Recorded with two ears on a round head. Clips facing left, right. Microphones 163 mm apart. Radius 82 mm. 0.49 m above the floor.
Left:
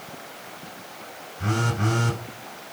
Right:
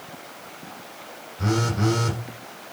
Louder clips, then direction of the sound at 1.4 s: Right 3 dB; 60° right (ahead or behind).